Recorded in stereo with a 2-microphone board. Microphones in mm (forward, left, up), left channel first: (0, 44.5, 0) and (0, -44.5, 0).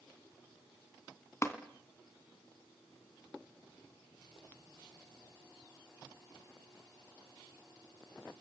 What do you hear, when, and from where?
1.4 s tapping: 30° left (ahead or behind), 2 m